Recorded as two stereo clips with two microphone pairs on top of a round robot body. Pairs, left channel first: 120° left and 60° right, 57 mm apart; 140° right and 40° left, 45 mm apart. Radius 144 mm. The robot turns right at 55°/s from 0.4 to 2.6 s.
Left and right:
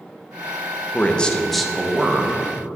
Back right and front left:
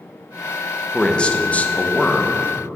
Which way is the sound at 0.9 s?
160° left.